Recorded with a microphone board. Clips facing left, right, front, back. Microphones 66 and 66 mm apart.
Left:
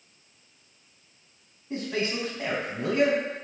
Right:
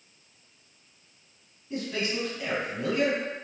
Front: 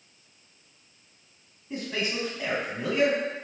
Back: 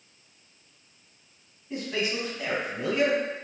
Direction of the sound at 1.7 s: 85° left.